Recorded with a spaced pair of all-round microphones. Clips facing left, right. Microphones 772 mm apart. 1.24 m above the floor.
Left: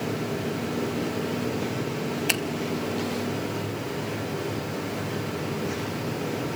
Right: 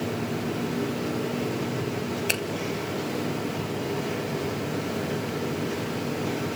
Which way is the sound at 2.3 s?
35° left (ahead or behind).